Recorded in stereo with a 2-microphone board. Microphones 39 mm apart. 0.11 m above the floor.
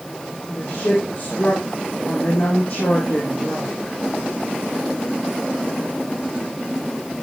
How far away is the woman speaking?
About 4 m.